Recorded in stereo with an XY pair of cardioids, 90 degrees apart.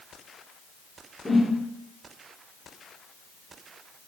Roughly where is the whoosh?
Ahead.